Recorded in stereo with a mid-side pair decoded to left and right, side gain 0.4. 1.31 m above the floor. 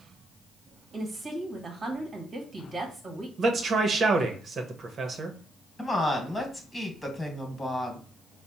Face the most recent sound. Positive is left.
turn(degrees=15)